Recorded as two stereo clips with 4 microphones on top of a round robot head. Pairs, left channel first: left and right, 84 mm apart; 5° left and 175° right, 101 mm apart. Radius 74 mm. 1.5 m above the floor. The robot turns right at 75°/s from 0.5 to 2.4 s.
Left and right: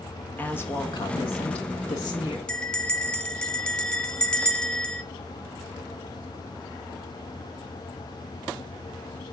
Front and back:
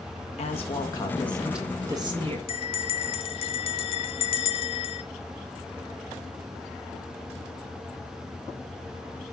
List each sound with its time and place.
0.4 s a woman speaking: 20° left, 1.6 m; by 2.4 s 165° left, 1.6 m
2.5 s a bell: 15° left, 0.8 m